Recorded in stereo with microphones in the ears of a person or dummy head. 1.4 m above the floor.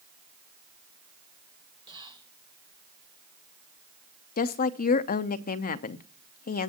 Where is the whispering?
25° right (ahead or behind), 1.4 m.